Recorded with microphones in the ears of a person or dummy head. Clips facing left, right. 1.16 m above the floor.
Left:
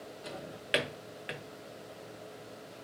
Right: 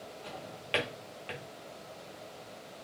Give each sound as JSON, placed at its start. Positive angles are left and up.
{"t": 0.2, "sound": "a drawer", "side_deg": 15, "distance_m": 0.9}